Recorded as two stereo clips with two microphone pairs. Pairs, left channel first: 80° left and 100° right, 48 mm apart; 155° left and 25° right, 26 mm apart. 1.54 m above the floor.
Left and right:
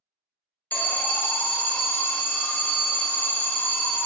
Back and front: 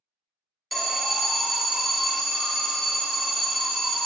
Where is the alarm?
55° left, 0.6 m.